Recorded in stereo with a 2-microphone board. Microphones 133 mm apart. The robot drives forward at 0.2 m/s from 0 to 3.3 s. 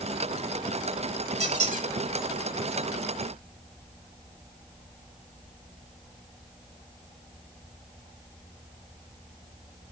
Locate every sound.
1.4 s a squeak: 60° right (ahead or behind), 1.1 m; by 1.9 s 65° right (ahead or behind), 1.1 m